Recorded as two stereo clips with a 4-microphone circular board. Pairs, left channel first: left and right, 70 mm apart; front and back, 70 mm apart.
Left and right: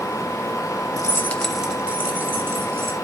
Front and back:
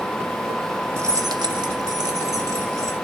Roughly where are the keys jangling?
Behind left.